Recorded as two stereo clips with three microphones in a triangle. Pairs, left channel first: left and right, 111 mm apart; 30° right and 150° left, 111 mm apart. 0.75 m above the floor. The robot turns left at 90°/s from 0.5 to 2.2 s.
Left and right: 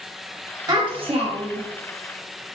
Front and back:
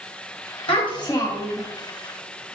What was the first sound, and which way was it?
A child speaking, 40° right.